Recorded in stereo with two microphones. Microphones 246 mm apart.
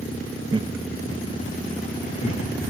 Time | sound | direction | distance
0.5 | laughter | 20° right (ahead or behind) | 0.7 m